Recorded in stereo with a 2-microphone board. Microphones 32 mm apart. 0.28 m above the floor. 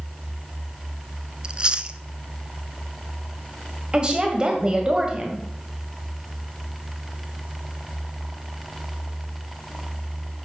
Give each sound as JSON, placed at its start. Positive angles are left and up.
{"t": 1.4, "sound": "chewing", "side_deg": -30, "distance_m": 0.6}
{"t": 3.9, "sound": "a woman speaking", "side_deg": -30, "distance_m": 1.7}